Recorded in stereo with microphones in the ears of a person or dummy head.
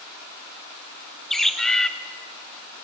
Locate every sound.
1.3 s a bird: 10° left (ahead or behind), 1.0 m